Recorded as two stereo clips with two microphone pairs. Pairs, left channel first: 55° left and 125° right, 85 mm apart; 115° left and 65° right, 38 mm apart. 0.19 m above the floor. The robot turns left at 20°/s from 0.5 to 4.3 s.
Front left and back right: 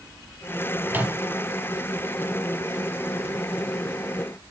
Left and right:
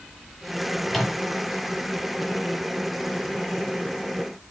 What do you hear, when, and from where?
0.9 s a microwave: 155° right, 1.3 m; by 1.2 s 160° right, 1.3 m